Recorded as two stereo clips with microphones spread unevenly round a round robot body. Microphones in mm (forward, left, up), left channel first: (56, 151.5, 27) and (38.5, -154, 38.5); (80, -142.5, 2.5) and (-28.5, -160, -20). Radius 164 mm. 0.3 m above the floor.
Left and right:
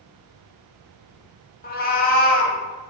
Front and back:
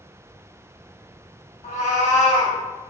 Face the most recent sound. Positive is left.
turn(degrees=30)